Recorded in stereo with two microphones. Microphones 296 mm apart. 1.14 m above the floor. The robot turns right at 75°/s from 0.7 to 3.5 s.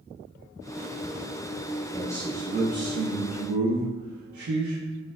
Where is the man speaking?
155° left, 0.5 m; by 4.8 s 85° right, 0.5 m.